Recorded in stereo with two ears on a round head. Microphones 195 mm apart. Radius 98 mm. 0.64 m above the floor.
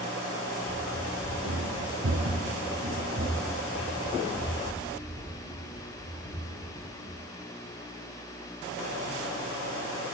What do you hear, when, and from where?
0.7 s running footsteps: 45° right (ahead or behind), 1.7 m; by 7.2 s 10° right (ahead or behind), 5 m